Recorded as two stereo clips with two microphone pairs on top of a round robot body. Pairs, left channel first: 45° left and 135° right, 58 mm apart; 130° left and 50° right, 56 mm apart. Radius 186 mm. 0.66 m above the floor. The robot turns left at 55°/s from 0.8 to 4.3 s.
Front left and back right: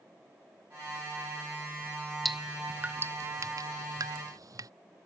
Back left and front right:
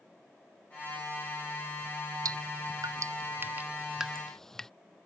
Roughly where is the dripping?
Ahead right.